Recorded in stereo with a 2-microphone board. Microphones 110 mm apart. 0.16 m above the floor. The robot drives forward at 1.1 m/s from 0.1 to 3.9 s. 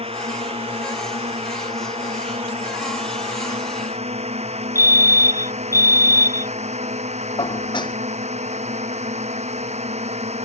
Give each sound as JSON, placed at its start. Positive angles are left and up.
{"t": 0.0, "sound": "a drone", "side_deg": -60}
{"t": 4.8, "sound": "a fire alarm", "side_deg": 30}
{"t": 7.4, "sound": "dishes clattering", "side_deg": 45}